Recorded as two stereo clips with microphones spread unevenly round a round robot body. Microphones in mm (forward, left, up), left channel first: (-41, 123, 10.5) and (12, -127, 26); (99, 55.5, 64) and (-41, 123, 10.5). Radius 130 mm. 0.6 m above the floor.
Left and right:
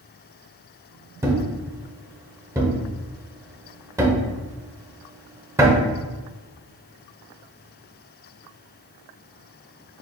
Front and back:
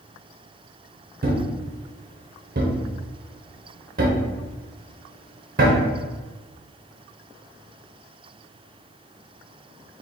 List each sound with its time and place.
1.2 s a thud: 160° right, 0.7 m